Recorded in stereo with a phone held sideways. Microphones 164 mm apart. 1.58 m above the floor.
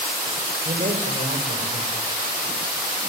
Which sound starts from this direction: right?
A man speaking, at 0.7 s.